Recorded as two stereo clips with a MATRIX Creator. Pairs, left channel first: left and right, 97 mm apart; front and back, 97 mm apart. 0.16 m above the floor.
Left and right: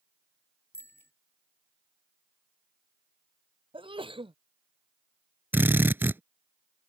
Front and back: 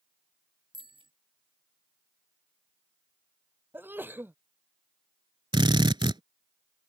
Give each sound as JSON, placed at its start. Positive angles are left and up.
{"t": 0.7, "sound": "a bicycle bell", "azimuth_deg": 155}
{"t": 3.7, "sound": "a sneeze", "azimuth_deg": -115}
{"t": 5.5, "sound": "a drill", "azimuth_deg": -155}